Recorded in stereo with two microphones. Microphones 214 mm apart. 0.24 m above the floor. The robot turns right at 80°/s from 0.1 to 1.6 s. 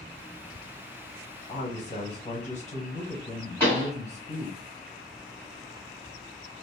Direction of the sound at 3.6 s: 10° left (ahead or behind).